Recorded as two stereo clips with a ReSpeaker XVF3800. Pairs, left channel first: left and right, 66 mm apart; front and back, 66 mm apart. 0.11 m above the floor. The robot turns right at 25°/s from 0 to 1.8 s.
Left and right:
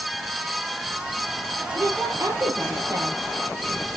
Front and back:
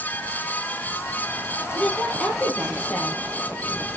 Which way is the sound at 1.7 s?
65° right.